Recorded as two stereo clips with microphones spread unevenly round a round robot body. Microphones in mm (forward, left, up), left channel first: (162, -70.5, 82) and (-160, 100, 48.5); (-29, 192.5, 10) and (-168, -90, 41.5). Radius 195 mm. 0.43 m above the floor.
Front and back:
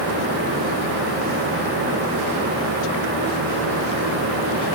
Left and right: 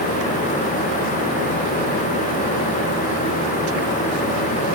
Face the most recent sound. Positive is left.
No sound to turn to.